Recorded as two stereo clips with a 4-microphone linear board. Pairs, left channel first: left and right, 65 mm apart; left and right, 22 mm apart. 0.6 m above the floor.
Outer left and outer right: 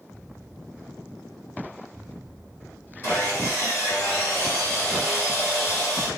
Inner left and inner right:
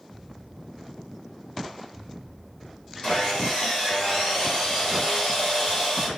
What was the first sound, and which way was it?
Sawing, 45° left (ahead or behind).